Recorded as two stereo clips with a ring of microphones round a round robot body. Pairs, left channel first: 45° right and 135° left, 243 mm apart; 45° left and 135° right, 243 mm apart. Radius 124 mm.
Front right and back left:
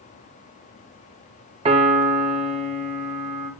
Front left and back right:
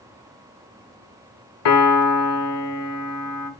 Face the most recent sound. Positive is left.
turn(degrees=70)